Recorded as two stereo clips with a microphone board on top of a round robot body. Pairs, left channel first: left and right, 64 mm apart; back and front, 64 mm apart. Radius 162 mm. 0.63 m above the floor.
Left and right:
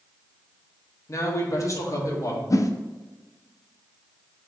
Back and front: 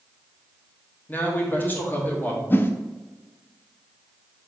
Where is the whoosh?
120° left, 0.6 m.